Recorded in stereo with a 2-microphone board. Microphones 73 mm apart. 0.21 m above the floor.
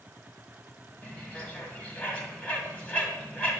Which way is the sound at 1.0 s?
15° left (ahead or behind).